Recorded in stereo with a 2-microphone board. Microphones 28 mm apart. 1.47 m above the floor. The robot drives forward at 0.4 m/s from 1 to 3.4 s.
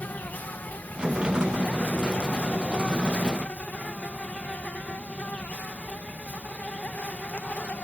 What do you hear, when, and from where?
0.0 s an insect: 85° left; by 7.9 s 60° left (ahead or behind)